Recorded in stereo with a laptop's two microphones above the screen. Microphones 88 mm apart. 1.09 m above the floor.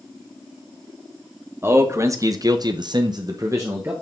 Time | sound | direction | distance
1.6 | a man speaking | 30° right (ahead or behind) | 1.3 m